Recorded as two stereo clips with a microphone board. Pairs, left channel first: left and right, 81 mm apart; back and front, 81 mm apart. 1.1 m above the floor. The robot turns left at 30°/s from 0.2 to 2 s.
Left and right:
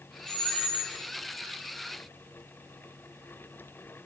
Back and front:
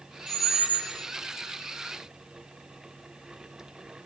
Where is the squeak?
175° right, 2.0 m; by 0.9 s 165° left, 2.0 m.